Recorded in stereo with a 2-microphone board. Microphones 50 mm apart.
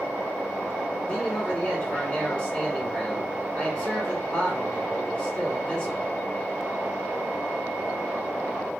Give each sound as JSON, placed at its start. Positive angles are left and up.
{"t": 1.1, "sound": "a man speaking", "side_deg": 20, "distance_m": 1.6}